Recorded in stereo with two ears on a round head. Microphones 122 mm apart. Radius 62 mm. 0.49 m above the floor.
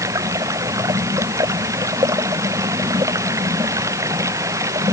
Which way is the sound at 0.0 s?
20° right (ahead or behind).